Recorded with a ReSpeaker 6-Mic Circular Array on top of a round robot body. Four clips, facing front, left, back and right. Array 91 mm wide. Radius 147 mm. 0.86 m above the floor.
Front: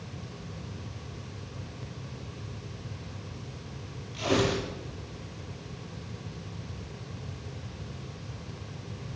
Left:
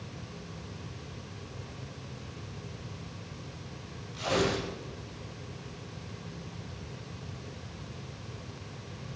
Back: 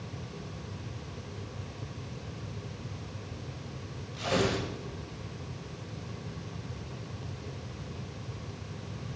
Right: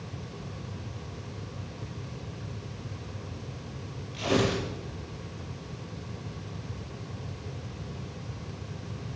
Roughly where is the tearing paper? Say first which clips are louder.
Right 2 dB, front 2 dB; ahead right.